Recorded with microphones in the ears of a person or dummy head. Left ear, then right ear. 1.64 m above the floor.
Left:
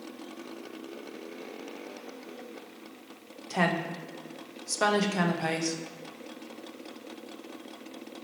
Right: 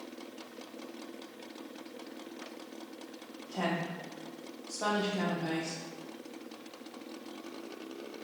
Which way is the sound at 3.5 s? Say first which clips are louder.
Left 6 dB; 70° left (ahead or behind).